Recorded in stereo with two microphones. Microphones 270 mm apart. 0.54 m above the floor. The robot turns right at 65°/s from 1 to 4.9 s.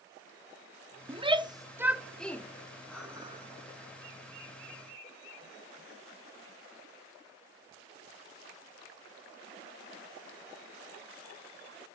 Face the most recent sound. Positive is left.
turn(degrees=-55)